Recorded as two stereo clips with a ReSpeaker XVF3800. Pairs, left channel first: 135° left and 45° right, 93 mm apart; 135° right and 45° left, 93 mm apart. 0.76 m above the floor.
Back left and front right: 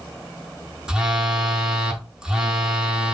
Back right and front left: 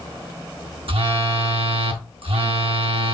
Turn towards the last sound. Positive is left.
turn(degrees=35)